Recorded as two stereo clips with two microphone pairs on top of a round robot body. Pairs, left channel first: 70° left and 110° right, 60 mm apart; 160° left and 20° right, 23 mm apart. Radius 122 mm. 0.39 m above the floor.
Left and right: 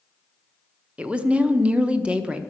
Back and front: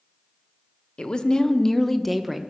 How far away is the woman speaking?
About 1.1 m.